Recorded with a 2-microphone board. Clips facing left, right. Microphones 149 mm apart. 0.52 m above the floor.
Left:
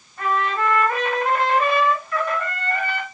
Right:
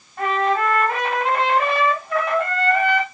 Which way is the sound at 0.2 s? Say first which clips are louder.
Right 3 dB; 80° right.